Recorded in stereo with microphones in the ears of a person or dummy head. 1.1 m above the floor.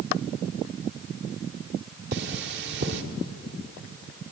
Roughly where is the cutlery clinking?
Right.